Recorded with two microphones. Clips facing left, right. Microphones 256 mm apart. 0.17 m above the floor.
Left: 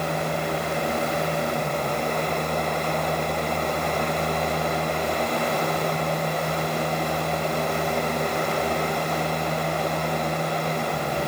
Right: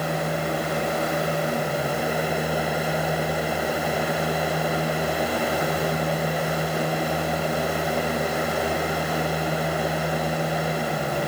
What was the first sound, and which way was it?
Only background noise.